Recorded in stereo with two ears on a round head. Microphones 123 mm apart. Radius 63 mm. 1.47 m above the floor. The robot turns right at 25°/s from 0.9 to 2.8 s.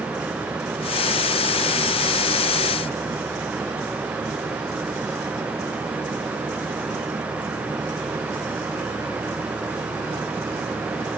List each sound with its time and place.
Only background noise.